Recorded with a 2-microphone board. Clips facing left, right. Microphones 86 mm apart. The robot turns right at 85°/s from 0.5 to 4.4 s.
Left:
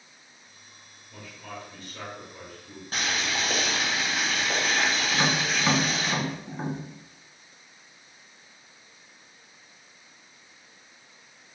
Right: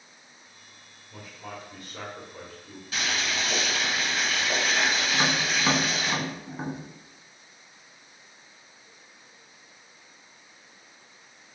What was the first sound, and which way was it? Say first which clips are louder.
A man speaking: even; 165° right.